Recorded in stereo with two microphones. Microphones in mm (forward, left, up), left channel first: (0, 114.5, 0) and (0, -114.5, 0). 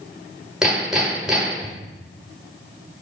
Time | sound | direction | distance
0.6 | hammering | 5° right (ahead or behind) | 1.5 m